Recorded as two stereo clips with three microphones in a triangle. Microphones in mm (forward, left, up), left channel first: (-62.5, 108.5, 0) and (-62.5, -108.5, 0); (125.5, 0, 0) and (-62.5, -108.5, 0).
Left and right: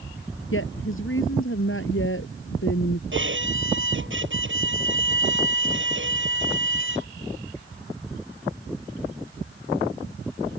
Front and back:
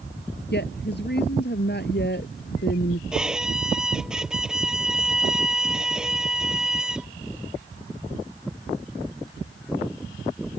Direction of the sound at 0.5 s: 70° left.